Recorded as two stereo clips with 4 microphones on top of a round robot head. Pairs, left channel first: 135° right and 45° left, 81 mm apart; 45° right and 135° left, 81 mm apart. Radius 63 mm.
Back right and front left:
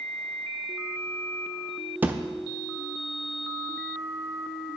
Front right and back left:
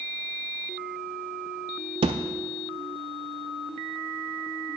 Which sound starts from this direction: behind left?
A thud, at 2.0 s.